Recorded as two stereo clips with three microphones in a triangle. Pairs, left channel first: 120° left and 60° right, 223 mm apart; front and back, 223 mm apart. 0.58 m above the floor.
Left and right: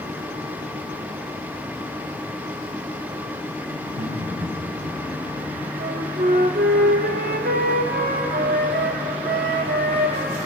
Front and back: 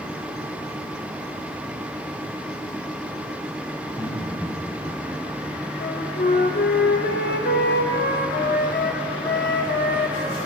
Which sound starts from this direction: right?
Laughter, at 3.8 s.